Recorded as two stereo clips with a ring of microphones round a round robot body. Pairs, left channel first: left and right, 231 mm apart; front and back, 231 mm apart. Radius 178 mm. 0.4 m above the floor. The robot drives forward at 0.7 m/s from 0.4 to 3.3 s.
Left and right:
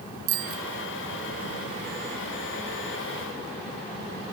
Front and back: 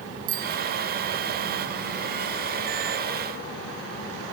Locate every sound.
0.3 s a bicycle bell: 120° right